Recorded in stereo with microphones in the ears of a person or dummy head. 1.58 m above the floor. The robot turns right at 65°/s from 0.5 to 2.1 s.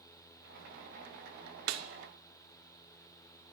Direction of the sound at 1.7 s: 75° right (ahead or behind).